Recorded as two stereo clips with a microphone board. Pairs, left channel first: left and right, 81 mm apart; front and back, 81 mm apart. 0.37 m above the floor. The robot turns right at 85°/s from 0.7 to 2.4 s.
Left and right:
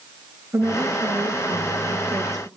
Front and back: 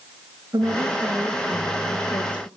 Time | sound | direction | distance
0.5 | a woman speaking | 140° right | 5 m